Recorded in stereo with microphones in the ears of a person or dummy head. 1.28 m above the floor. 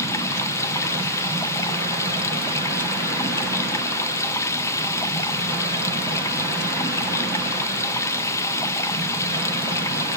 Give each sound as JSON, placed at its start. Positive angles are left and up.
{"t": 0.0, "sound": "running water", "side_deg": 15, "distance_m": 0.8}